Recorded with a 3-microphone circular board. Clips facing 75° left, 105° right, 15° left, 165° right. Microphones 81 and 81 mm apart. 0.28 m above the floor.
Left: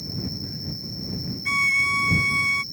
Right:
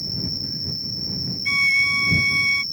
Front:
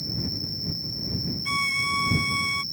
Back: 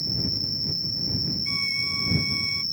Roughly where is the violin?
Ahead.